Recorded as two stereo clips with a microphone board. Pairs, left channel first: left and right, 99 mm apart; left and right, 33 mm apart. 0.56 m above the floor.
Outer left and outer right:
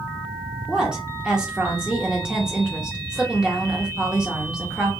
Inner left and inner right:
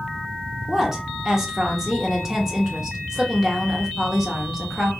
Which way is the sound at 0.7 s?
10° right (ahead or behind).